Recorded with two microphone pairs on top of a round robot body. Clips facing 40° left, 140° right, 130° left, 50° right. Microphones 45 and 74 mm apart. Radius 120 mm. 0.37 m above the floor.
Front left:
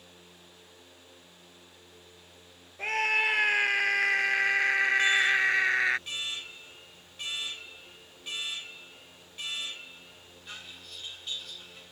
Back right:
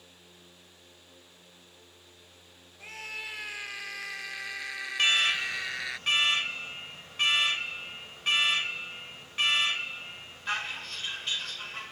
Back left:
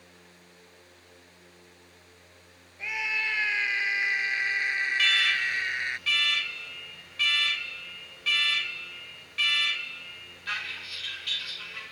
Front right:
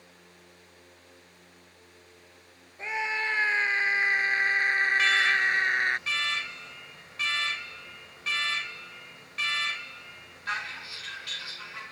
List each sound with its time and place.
2.8 s a scream: 10° left; by 6.0 s 5° right
5.0 s an alarm: 115° right